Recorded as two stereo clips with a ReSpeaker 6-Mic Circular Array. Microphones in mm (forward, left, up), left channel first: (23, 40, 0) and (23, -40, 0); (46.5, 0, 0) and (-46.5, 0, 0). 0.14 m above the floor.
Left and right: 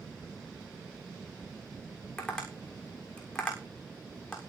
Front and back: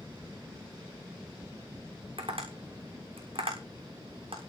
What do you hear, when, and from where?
2.2 s tapping: 170° left, 6.5 m